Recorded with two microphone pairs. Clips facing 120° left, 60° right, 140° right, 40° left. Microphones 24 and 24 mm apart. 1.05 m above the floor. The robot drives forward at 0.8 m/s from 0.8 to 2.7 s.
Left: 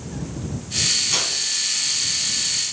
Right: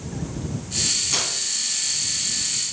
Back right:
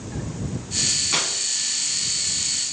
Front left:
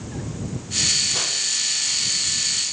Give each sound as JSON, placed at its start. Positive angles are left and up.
{"t": 1.1, "sound": "tearing paper", "azimuth_deg": -160, "distance_m": 2.0}